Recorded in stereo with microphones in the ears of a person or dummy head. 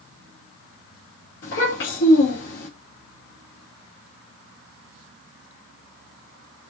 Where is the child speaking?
75° left (ahead or behind), 2.5 m.